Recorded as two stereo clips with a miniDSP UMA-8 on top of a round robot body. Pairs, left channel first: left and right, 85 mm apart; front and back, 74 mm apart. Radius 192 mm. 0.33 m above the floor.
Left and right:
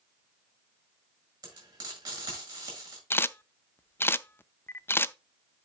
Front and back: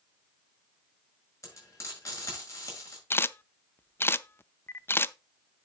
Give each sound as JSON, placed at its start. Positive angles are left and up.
{"t": 1.4, "sound": "frying", "azimuth_deg": -50, "distance_m": 6.5}
{"t": 3.1, "sound": "a camera shutter", "azimuth_deg": 40, "distance_m": 0.6}